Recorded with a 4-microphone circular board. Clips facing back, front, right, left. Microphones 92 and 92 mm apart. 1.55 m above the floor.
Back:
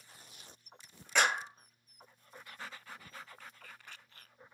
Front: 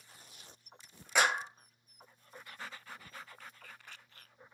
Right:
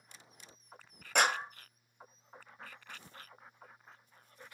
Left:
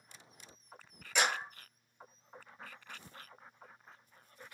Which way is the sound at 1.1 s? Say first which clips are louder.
Even, right 3 dB; 80° right.